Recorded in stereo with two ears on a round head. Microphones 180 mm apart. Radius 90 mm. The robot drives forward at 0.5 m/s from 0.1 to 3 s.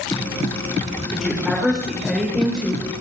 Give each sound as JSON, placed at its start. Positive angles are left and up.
{"t": 1.1, "sound": "a woman speaking", "side_deg": 0, "distance_m": 2.5}